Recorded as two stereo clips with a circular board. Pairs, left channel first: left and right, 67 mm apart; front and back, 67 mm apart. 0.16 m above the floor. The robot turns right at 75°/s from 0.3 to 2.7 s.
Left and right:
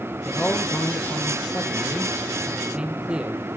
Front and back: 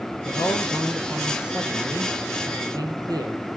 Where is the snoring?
I don't hear snoring.